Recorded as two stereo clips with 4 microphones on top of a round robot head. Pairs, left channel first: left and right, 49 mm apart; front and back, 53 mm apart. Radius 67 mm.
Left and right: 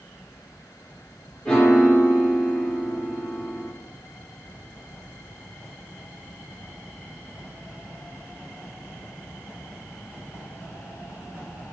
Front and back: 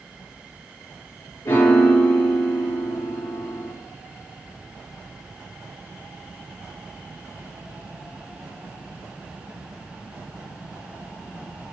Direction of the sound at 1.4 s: 30° left.